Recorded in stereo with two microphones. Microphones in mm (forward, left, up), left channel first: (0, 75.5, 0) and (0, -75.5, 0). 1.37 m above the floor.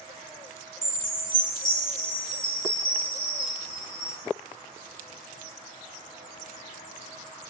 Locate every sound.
0.8 s a chime: 65° left (ahead or behind), 1.7 m